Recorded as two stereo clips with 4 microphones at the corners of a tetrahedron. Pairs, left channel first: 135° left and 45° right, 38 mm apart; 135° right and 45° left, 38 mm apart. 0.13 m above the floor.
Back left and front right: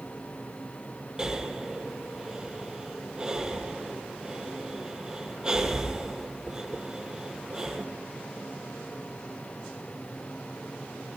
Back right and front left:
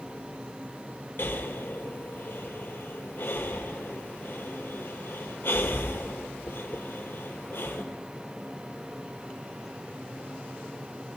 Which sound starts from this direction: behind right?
Breathing, at 1.2 s.